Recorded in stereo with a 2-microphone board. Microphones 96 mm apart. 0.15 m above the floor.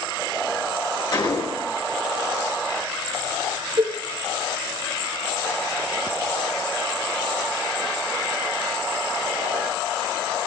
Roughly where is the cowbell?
Right.